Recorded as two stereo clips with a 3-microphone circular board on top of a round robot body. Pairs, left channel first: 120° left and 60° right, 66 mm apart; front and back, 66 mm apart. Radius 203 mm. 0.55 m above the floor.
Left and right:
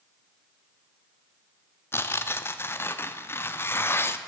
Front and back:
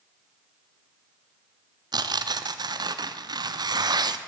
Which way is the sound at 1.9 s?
175° left.